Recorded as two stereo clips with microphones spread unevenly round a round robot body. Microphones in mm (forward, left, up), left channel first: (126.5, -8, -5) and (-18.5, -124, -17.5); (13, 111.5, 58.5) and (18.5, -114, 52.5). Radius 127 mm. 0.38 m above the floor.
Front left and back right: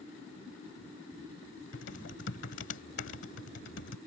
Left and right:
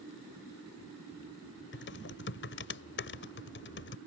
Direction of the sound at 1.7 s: 60° left.